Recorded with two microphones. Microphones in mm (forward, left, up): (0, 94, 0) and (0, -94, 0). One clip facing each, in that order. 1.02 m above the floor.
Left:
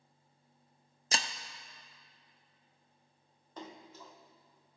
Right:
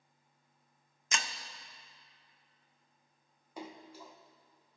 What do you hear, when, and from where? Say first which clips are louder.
1.1 s breaking glass: left 2 dB; 35° left (ahead or behind), 0.5 m
3.6 s a splash: right 2 dB; 10° right (ahead or behind), 0.8 m